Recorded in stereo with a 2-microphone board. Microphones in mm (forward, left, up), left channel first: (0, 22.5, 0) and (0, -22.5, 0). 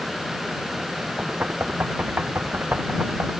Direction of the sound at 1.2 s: 40° right (ahead or behind).